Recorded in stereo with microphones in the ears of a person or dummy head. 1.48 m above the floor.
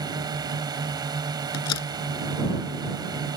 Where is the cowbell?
I don't hear a cowbell.